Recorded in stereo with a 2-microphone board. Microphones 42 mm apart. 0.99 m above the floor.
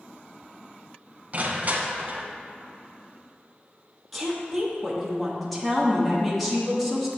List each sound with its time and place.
1.3 s crushing: 40° right (ahead or behind), 0.8 m
4.1 s a woman speaking: 5° left (ahead or behind), 1.3 m